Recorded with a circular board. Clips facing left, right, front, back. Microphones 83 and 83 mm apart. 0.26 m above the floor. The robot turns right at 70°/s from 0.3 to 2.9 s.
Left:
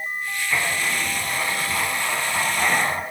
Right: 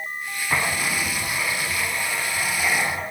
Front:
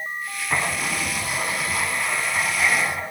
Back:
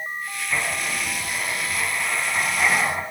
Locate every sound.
0.5 s writing: 45° right, 3 m; by 3.0 s 125° left, 3 m